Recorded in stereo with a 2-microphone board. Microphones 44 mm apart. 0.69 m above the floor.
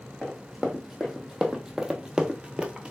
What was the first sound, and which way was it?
Running footsteps, 5° right (ahead or behind).